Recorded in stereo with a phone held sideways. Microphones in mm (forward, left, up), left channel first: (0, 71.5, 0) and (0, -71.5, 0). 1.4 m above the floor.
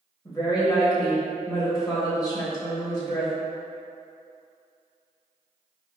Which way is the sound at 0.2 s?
25° left (ahead or behind).